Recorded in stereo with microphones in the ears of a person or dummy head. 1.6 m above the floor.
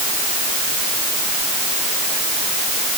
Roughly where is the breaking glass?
I don't hear breaking glass.